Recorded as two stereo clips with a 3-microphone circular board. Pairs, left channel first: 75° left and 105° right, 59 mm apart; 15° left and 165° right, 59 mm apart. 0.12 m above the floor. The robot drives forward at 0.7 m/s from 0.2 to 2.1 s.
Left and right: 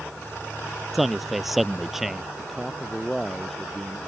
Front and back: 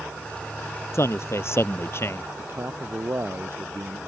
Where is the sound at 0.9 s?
15° right; by 2.3 s 20° right.